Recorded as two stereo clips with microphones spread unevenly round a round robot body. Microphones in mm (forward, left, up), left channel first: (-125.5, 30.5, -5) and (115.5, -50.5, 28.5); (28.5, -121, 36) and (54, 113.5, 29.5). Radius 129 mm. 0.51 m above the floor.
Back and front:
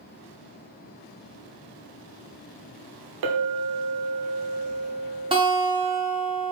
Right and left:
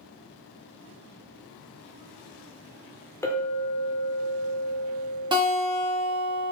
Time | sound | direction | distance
3.2 | a clink | 15° right | 0.7 m
5.3 | a guitar | 45° left | 1.4 m